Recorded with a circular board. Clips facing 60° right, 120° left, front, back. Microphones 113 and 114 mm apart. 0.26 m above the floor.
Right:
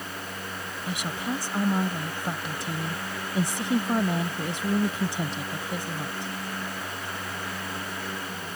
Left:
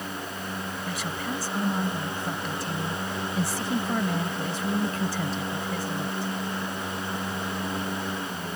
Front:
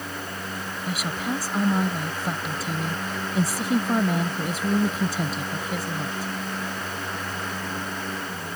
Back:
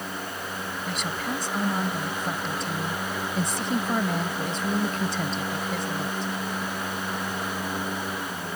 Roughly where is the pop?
I don't hear a pop.